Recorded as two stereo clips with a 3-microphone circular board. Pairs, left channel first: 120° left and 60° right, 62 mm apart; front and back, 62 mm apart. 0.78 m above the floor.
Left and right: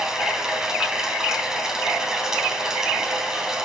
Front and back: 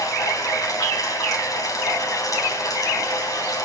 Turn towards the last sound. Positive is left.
turn(degrees=20)